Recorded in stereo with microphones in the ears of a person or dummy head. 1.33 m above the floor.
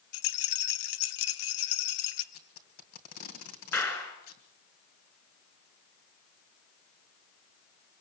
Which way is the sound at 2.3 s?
45° left (ahead or behind).